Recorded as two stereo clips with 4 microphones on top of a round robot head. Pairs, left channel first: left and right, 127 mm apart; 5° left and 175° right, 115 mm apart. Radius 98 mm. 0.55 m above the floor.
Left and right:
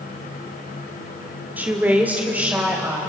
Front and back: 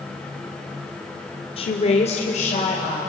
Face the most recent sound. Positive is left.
turn(degrees=-10)